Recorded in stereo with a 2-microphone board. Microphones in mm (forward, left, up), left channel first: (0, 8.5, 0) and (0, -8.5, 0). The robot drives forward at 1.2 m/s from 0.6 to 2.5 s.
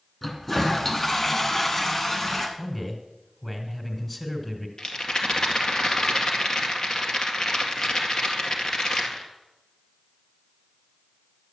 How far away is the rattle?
About 1.9 m.